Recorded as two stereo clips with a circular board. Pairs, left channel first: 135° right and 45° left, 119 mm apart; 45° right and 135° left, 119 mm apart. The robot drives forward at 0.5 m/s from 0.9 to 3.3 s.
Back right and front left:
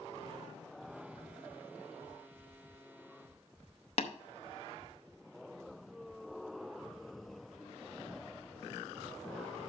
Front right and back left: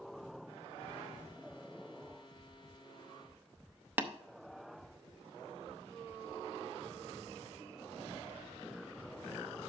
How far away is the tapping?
About 0.6 m.